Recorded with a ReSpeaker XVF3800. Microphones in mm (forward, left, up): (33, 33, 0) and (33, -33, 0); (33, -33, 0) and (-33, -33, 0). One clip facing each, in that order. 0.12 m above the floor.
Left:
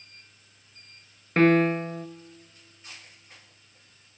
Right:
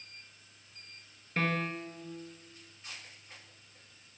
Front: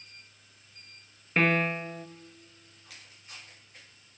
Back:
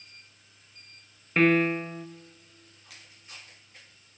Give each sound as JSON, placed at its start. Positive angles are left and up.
{"t": 1.4, "sound": "a piano", "azimuth_deg": 90, "distance_m": 0.5}